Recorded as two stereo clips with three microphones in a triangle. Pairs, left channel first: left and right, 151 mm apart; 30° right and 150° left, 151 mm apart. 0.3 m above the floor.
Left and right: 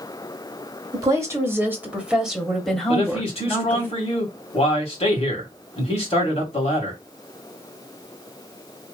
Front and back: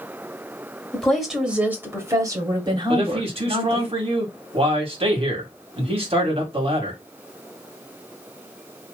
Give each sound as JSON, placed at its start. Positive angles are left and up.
{"t": 0.9, "sound": "a woman speaking", "azimuth_deg": -110, "distance_m": 1.5}
{"t": 2.9, "sound": "a man speaking", "azimuth_deg": 120, "distance_m": 2.0}